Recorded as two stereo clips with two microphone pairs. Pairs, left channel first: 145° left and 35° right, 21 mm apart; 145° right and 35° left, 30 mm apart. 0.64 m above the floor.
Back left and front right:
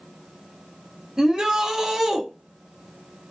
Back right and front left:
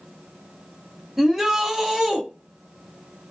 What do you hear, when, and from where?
1.2 s a shout: 35° right, 0.7 m